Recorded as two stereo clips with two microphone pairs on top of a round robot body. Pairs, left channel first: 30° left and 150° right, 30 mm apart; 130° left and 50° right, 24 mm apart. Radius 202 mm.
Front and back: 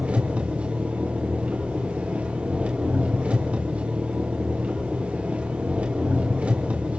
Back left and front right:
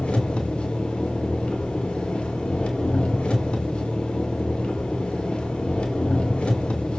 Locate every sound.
0.0 s an engine running: 165° left, 2.5 m